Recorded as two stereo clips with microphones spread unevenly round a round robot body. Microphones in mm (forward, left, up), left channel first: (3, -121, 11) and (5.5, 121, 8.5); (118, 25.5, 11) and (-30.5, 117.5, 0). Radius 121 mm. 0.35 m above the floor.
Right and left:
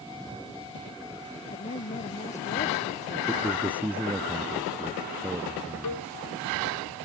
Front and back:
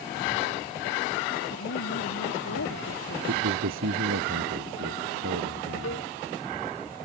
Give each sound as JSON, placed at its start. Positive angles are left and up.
{"t": 1.5, "sound": "a woman speaking", "azimuth_deg": -30}
{"t": 3.3, "sound": "a man speaking", "azimuth_deg": 175}
{"t": 5.8, "sound": "a cowbell", "azimuth_deg": -80}